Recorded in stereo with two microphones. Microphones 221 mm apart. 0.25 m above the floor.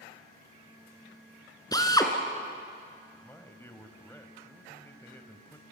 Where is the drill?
15° left (ahead or behind), 2 m.